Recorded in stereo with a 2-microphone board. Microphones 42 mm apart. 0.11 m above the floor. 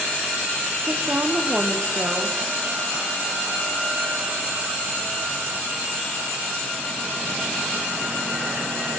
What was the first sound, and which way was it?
A woman speaking, 35° right (ahead or behind).